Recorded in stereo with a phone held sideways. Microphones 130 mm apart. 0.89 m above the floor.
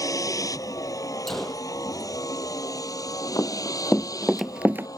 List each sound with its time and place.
0.0 s a vehicle: 25° left (ahead or behind)
1.3 s a gunshot: 5° left (ahead or behind)
3.4 s running footsteps: 20° left (ahead or behind); by 4.9 s 20° right (ahead or behind)